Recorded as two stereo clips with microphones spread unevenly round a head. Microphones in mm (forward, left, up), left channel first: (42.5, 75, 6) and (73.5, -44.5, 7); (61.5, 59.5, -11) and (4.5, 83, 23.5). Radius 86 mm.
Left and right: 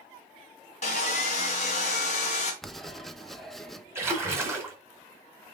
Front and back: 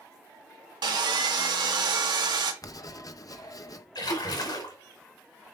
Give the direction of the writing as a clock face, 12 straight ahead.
11 o'clock.